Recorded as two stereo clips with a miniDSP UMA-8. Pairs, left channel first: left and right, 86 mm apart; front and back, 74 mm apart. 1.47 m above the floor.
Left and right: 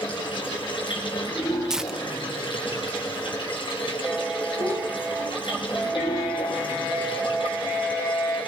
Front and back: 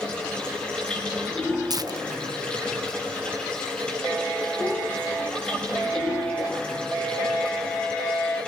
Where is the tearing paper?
175° right, 0.9 m.